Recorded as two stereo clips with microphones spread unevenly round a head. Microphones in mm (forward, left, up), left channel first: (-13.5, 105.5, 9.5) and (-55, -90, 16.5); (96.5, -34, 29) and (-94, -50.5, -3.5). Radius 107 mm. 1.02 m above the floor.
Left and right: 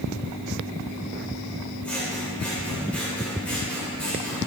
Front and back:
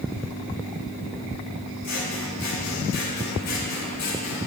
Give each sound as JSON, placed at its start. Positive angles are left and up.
{"t": 1.8, "sound": "scissors", "azimuth_deg": -5, "distance_m": 3.0}